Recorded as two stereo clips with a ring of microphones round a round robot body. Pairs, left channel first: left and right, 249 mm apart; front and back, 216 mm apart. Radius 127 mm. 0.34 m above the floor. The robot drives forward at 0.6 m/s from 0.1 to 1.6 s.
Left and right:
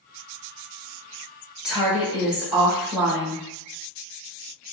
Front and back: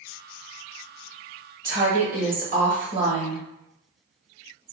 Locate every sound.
1.6 s a woman speaking: 175° right, 1.1 m